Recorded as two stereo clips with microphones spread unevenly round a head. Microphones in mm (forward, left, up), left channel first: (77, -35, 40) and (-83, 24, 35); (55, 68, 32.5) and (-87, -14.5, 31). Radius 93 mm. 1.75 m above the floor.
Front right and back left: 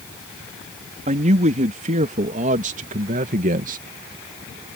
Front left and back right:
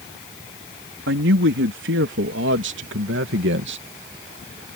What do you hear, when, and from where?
1.1 s a man speaking: 150° right; by 3.8 s 155° right